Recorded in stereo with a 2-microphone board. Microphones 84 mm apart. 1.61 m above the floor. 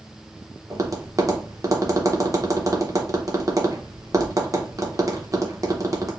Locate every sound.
0.7 s tapping: 40° right (ahead or behind), 0.9 m